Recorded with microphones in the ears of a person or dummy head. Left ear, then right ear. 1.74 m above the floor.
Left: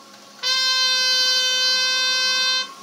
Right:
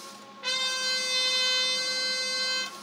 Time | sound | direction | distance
0.4 | a trumpet | 65° left (ahead or behind) | 1.3 m